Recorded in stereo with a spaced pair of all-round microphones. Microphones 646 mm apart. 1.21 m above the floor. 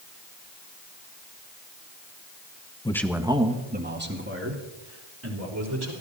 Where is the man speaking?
10° left (ahead or behind), 1.0 m; by 5.9 s 25° right (ahead or behind), 4.5 m.